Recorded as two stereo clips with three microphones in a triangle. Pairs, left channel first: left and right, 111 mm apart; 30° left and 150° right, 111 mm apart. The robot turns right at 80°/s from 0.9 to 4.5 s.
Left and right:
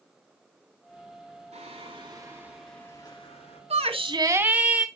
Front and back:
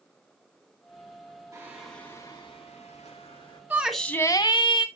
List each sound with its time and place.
1.5 s singing: 85° right, 4.5 m; by 3.6 s 80° left, 4.5 m
3.7 s a shout: 75° right, 2.0 m; by 4.9 s 10° right, 2.0 m